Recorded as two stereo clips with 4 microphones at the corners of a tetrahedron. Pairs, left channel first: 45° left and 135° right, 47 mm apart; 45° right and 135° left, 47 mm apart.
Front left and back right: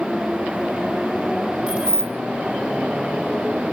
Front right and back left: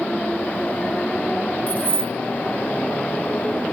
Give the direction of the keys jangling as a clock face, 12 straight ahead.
3 o'clock.